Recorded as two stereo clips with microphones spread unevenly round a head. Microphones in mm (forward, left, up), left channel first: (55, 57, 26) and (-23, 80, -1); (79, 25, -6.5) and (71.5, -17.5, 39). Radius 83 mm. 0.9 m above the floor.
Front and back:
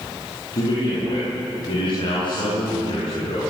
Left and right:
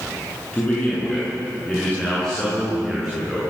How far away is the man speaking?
About 9.5 m.